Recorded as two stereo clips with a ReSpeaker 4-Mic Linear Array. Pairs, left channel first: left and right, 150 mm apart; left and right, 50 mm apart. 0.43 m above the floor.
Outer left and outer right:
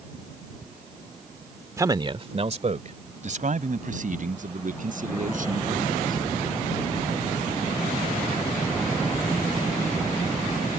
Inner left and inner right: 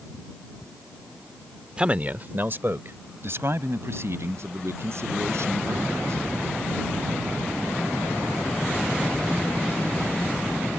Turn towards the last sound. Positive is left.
turn(degrees=-65)  # may be behind; listen again after turning